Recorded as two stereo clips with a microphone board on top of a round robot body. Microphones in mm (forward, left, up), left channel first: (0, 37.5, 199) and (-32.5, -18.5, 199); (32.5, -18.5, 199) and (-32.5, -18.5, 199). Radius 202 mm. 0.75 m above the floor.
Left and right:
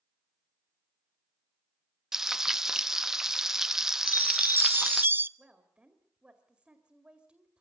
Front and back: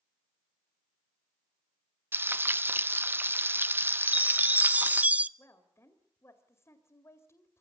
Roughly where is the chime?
Behind right.